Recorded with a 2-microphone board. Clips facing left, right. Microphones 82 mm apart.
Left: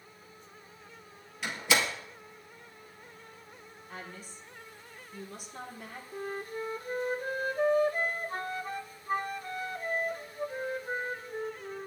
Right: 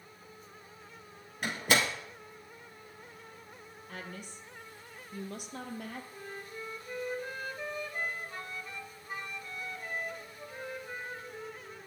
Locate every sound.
1.4 s a door slam: 45° right (ahead or behind), 1.8 m
3.9 s a woman speaking: 60° right (ahead or behind), 2 m
6.1 s a flute: 45° left (ahead or behind), 0.6 m